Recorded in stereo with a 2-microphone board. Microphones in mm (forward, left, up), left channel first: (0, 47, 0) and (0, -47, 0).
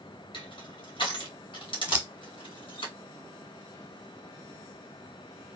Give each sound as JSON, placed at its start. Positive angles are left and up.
{"t": 0.3, "sound": "crushing", "side_deg": 65, "distance_m": 2.5}
{"t": 1.9, "sound": "scissors", "side_deg": -15, "distance_m": 1.0}